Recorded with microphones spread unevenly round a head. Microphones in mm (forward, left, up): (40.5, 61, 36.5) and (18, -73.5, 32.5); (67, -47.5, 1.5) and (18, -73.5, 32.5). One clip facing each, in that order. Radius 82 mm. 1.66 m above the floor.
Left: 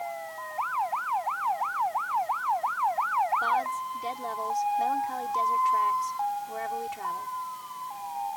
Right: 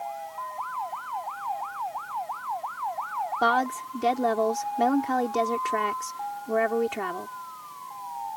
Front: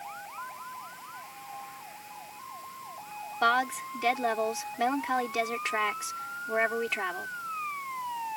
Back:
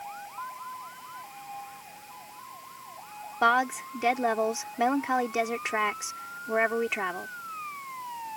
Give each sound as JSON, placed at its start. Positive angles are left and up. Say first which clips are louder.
{"t": 3.4, "sound": "a woman speaking", "louder": "right 4 dB, back 2 dB", "azimuth_deg": -85}